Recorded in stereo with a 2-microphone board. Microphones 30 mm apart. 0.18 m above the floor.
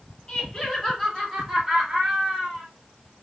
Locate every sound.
0.3 s laughter: 30° left (ahead or behind), 1.6 m; by 2.7 s 40° right (ahead or behind), 1.9 m